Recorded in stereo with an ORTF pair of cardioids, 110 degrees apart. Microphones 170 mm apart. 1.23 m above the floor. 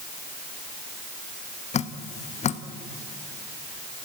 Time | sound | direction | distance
1.7 | dripping | 45° left | 1.1 m